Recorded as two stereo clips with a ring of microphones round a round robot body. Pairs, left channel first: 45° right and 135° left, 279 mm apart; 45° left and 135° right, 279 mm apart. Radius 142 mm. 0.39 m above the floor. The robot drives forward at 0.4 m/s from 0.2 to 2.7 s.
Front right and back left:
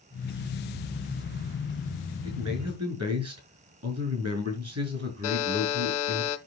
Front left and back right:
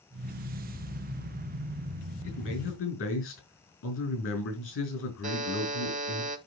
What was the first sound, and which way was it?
A man speaking, 90° left.